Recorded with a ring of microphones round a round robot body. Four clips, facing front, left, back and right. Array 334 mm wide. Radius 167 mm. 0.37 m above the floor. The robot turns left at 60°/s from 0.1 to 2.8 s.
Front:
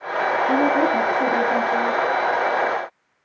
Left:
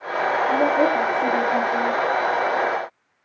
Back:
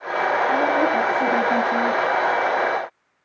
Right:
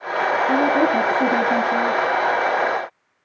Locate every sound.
0.5 s a woman speaking: 50° right, 5.5 m; by 2.0 s 140° right, 5.5 m